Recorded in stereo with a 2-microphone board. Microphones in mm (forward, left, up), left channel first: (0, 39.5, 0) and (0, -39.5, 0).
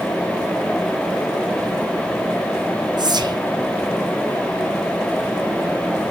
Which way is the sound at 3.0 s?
60° right (ahead or behind).